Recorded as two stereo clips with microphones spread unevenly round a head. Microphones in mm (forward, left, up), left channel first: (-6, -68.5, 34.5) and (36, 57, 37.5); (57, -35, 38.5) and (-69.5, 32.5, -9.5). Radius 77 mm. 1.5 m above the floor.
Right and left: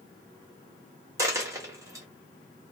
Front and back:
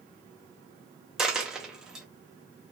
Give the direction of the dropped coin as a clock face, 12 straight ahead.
11 o'clock.